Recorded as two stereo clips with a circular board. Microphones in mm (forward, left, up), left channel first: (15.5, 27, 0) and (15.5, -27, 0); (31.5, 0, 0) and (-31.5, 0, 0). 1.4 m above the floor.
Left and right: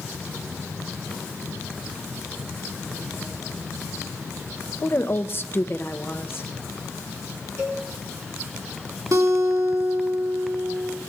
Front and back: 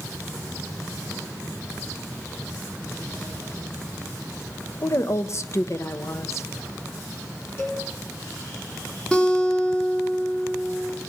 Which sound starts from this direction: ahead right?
A cowbell, at 7.6 s.